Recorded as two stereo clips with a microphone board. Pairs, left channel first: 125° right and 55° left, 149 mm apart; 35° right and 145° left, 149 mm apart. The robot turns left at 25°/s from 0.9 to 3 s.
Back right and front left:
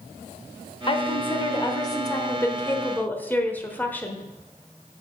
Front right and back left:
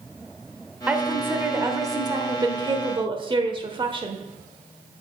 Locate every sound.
0.9 s a woman speaking: 140° right, 1.2 m; by 4.2 s 165° left, 1.2 m